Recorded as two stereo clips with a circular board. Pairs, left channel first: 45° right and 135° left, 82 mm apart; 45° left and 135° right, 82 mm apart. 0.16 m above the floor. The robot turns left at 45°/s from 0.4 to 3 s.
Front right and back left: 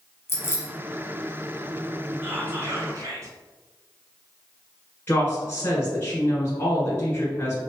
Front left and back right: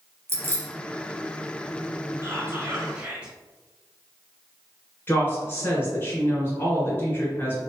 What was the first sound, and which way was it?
Keys jangling, 90° right.